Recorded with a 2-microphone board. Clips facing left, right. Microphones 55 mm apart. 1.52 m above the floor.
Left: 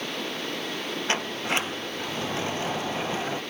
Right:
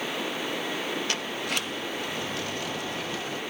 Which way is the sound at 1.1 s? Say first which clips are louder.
Left 3 dB; 30° left (ahead or behind).